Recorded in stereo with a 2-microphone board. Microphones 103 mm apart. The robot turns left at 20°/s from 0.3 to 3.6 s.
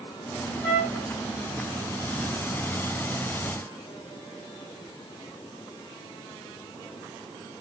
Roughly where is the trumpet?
Left.